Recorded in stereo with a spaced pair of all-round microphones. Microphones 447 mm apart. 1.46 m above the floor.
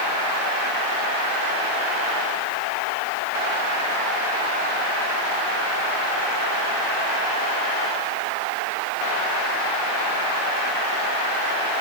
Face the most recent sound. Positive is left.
No sound to turn to.